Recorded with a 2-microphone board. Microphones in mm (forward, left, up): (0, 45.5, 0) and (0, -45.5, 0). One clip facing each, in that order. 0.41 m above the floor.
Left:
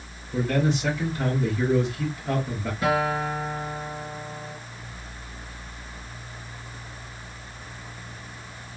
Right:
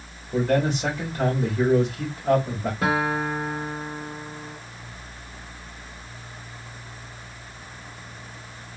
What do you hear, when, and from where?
0.3 s a man speaking: 60° right (ahead or behind), 2.5 m
2.8 s a guitar: 85° right, 2 m